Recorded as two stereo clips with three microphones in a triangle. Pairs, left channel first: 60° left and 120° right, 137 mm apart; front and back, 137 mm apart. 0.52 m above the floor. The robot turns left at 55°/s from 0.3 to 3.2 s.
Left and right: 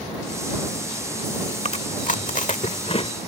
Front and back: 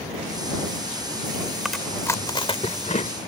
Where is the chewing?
95° left; by 3.1 s 15° left.